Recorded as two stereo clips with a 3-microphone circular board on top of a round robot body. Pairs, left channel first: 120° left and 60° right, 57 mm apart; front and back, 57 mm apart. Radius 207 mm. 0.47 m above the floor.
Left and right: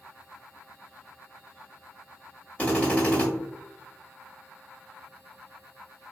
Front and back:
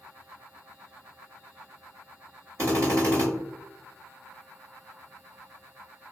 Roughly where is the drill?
Behind.